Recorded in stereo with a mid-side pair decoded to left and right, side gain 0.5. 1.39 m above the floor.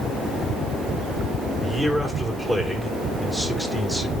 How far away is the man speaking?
About 4.5 m.